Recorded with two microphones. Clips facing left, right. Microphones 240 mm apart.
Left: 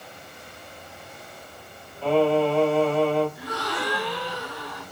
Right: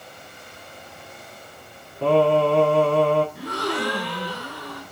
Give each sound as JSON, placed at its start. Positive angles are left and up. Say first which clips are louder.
{"t": 2.0, "sound": "singing", "louder": "right 2 dB", "side_deg": -85, "distance_m": 4.5}
{"t": 3.4, "sound": "a gasp", "louder": "right 4 dB", "side_deg": -85, "distance_m": 6.0}